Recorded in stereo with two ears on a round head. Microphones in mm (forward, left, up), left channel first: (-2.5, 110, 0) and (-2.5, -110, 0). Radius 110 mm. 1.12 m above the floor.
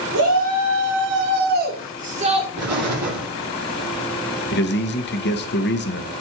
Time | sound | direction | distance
0.1 | a shout | 70° right (ahead or behind) | 2.5 m
2.6 | an explosion | 70° right (ahead or behind) | 8 m
4.5 | a man speaking | 45° left (ahead or behind) | 1.3 m